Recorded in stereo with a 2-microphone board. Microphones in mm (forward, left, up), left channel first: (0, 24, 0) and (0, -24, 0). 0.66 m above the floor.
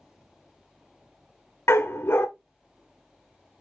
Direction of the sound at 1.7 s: 60° left (ahead or behind).